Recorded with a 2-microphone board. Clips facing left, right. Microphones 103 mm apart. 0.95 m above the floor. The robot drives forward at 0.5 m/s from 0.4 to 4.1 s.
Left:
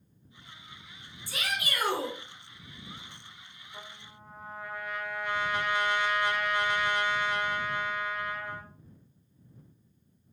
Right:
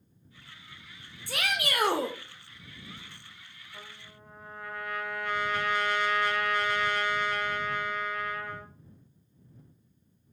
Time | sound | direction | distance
1.3 | a shout | 60° right (ahead or behind) | 0.7 m
3.7 | a trumpet | 15° left (ahead or behind) | 0.6 m